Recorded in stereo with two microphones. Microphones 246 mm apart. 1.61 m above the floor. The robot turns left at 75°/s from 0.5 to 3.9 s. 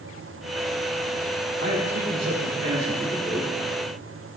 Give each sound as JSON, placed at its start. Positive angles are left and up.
{"t": 1.6, "sound": "a man speaking", "azimuth_deg": -40, "distance_m": 6.0}